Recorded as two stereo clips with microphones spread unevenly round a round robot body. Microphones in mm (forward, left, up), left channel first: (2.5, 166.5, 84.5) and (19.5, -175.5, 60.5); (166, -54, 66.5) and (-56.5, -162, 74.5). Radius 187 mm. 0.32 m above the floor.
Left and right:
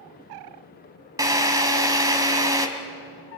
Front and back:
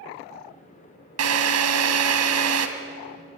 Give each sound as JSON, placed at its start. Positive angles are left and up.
{"t": 1.2, "sound": "a drill", "azimuth_deg": -165, "distance_m": 2.0}